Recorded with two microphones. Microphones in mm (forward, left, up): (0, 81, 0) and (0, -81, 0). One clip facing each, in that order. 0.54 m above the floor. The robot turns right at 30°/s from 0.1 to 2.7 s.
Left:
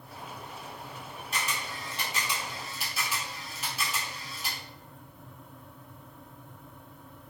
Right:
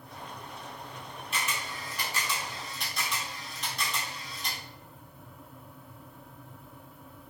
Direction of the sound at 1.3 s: 40° left (ahead or behind).